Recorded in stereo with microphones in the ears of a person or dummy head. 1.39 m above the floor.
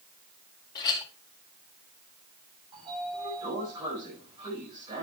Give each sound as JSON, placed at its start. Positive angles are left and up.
{"t": 0.8, "sound": "a clink", "side_deg": 25, "distance_m": 1.7}
{"t": 2.7, "sound": "a sliding door", "side_deg": -25, "distance_m": 6.5}